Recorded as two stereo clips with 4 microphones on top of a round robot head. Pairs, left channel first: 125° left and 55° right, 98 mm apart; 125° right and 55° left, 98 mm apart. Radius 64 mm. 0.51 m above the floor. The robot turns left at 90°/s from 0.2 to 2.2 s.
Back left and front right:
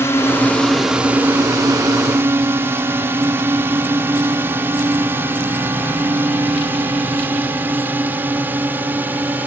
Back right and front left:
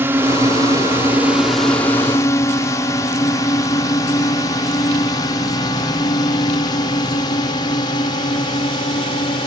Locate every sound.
0.0 s a drone: 95° left; by 9.5 s 120° right